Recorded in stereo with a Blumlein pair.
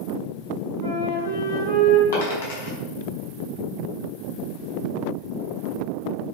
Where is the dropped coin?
60° left, 4.5 m.